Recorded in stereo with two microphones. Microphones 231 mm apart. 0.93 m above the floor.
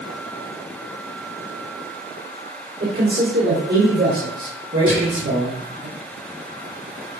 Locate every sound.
2.8 s a man speaking: 45° right (ahead or behind), 3.5 m; by 5.9 s 75° right (ahead or behind), 5 m
4.9 s whispering: 60° right (ahead or behind), 7 m